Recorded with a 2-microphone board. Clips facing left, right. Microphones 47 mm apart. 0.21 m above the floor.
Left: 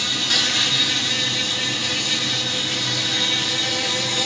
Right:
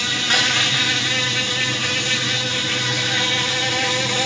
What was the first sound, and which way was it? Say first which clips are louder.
An insect: right 3 dB; 40° right (ahead or behind).